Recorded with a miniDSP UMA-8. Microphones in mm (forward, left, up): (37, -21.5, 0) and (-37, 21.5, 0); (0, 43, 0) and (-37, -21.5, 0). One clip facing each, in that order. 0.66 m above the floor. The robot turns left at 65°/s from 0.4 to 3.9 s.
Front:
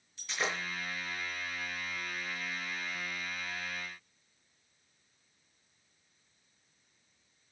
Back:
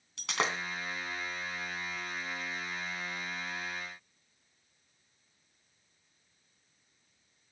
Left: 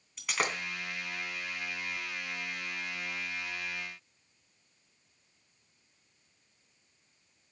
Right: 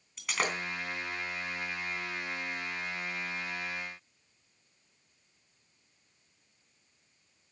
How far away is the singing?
No singing in this recording.